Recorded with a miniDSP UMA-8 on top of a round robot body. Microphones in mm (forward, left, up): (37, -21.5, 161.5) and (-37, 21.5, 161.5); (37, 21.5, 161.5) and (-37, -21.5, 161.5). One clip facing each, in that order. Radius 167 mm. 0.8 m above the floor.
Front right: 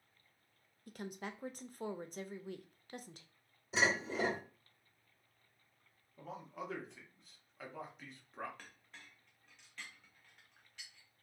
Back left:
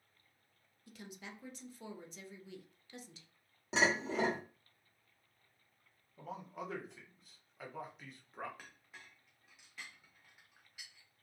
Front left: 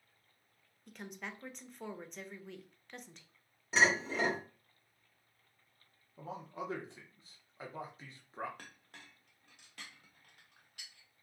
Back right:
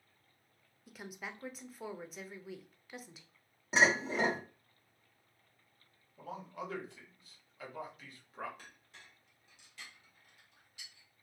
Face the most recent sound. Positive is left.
turn(degrees=65)